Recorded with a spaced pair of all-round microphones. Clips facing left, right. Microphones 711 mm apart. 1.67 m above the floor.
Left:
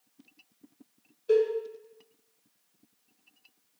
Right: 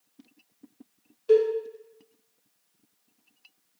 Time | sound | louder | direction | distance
1.3 | a cowbell | right 3 dB | 35° right (ahead or behind) | 0.6 m